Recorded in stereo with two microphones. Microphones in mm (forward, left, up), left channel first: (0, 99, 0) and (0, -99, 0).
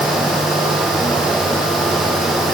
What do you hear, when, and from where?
Only background noise.